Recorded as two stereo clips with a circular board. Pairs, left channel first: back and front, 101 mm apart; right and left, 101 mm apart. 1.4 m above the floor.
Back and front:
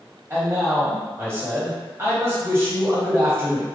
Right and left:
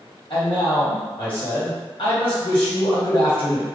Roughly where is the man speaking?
Ahead right.